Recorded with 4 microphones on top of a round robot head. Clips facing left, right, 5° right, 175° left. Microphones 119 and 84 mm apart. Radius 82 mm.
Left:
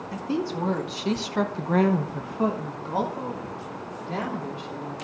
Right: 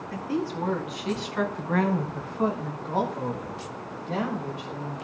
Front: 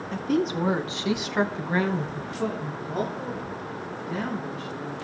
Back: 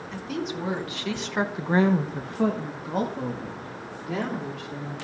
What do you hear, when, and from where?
0.1 s a woman speaking: 25° left, 1.8 m; by 5.0 s straight behind, 4 m